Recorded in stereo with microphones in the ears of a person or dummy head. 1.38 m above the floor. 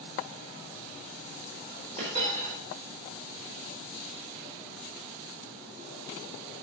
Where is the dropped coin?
40° right (ahead or behind), 4.5 m.